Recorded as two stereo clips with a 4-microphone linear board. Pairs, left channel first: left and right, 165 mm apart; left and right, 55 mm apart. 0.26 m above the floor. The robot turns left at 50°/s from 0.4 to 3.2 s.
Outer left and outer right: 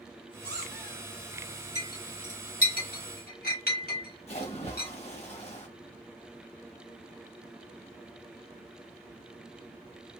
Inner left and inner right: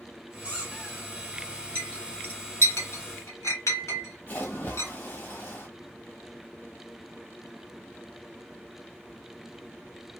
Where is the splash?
40° left (ahead or behind), 1.1 m.